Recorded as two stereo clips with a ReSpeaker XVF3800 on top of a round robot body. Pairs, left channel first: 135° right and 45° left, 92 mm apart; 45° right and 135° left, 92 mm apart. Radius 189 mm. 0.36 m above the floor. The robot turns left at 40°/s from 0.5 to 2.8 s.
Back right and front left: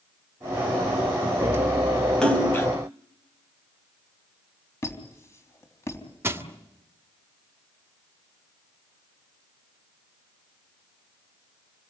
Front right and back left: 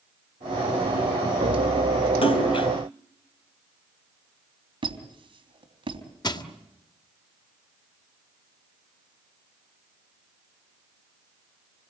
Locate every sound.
2.2 s a splash: 55° right, 3.5 m; by 2.7 s 75° right, 3.5 m
4.8 s a squeak: 165° left, 3.5 m
6.2 s crushing: 15° right, 2.5 m